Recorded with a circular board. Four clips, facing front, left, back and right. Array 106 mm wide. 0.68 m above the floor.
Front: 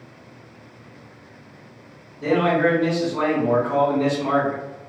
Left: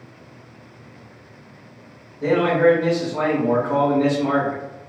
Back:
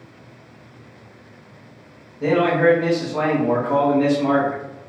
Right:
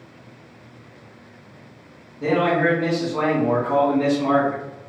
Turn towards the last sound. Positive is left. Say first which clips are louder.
# left 3 dB, back 2 dB
turn(degrees=-160)